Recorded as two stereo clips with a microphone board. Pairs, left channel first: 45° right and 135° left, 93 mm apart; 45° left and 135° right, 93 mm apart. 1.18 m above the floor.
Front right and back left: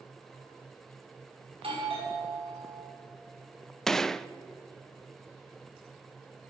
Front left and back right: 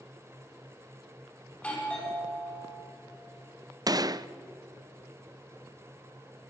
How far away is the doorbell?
About 5.5 m.